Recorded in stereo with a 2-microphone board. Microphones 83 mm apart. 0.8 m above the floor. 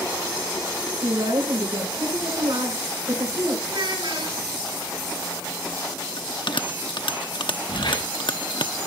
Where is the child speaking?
85° right, 6.5 m.